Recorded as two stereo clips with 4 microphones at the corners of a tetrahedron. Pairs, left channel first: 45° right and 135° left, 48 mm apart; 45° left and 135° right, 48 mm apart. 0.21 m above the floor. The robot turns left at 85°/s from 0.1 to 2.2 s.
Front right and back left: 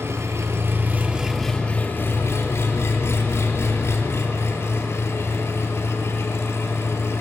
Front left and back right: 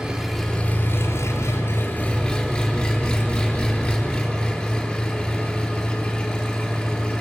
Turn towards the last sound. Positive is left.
turn(degrees=-25)